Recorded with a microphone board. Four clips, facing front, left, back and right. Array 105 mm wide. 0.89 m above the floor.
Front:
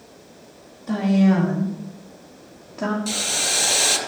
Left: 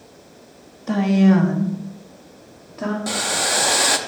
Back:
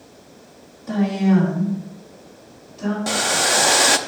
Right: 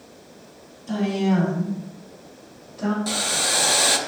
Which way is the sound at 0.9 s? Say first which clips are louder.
Left 6 dB, even; 90° left.